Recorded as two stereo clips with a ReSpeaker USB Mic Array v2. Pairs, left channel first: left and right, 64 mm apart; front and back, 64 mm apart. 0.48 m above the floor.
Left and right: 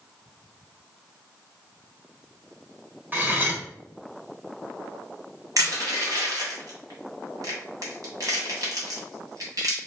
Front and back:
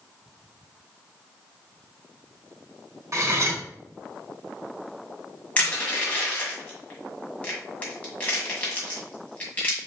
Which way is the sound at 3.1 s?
145° right.